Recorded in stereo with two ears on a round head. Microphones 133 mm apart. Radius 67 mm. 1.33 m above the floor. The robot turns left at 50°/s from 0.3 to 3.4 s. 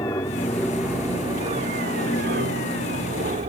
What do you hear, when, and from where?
0.0 s an aircraft: 20° left (ahead or behind); by 3.5 s 45° right (ahead or behind)